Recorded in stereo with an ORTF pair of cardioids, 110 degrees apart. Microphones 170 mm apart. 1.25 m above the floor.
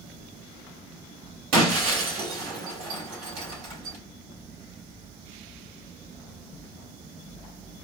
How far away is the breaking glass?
About 2.5 m.